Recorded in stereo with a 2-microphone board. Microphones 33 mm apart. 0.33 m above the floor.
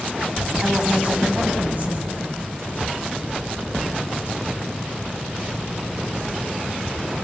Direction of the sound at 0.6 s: 35° right (ahead or behind).